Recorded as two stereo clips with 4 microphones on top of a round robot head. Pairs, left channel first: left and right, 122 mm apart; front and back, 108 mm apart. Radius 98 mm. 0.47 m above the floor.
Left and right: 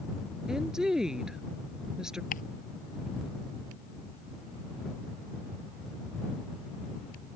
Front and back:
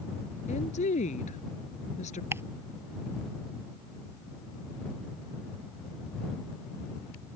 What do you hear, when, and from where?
0.5 s a woman speaking: 5° right
2.3 s ticking: 115° left